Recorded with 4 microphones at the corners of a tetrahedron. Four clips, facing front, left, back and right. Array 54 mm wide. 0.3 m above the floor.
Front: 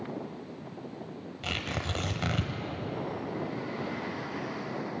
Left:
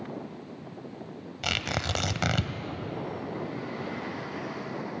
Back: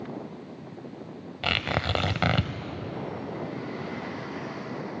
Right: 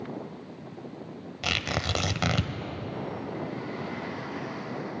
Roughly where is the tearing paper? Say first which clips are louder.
Right 1 dB, back 7 dB; behind.